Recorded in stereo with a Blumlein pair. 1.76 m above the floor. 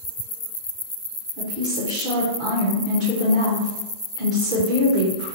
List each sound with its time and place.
1.4 s a woman speaking: 35° right, 1.0 m